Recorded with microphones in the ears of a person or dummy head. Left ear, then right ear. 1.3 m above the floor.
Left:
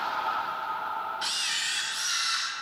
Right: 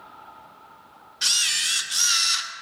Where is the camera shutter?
35° right (ahead or behind), 1.3 m.